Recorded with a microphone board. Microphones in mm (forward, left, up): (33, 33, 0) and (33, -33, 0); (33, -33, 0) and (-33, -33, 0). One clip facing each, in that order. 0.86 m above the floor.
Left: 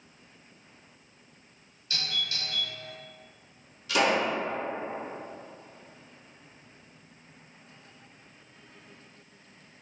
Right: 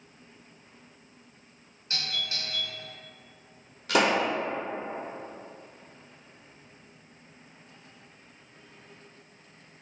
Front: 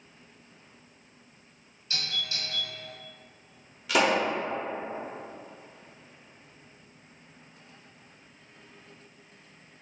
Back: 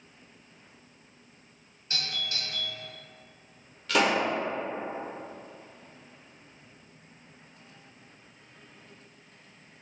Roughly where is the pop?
Right.